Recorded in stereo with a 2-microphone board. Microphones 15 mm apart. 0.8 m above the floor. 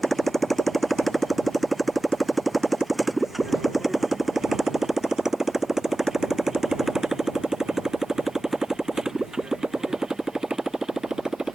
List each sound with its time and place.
0.0 s a motorcycle: 15° left (ahead or behind); by 11.6 s 60° right (ahead or behind)